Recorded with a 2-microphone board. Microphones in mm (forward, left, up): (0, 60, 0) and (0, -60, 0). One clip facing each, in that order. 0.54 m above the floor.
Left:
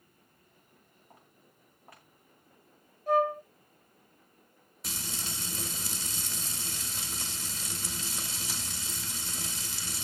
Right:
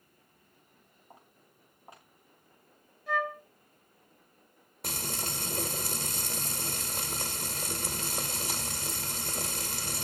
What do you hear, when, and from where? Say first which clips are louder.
1.1 s footsteps: right 3 dB; 20° right (ahead or behind), 7.5 m
3.1 s a flute: left 6 dB; 45° left (ahead or behind), 0.7 m
4.8 s frying: right 4 dB; 55° right (ahead or behind), 2 m